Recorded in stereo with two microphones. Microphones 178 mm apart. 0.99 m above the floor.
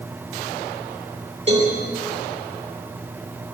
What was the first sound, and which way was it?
A cowbell, 35° right (ahead or behind).